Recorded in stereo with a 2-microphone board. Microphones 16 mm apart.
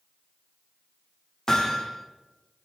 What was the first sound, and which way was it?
Hammering, 35° left (ahead or behind).